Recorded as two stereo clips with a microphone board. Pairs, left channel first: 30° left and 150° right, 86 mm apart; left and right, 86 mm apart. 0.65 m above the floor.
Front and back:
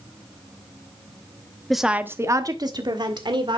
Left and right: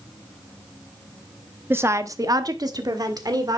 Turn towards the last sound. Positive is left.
turn(degrees=-130)